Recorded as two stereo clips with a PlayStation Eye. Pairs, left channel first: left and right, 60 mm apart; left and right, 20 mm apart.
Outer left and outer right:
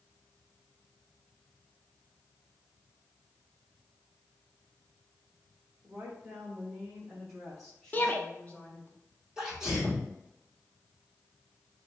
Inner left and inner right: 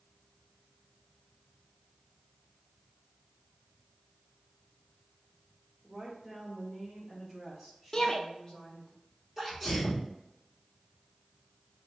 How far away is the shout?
About 0.8 m.